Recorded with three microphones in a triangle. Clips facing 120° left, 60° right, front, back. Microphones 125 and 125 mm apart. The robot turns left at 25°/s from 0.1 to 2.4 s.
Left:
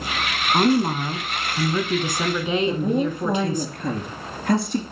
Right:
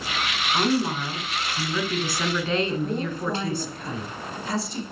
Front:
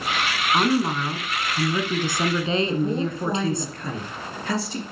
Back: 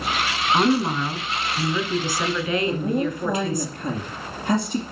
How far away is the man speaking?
About 2.5 m.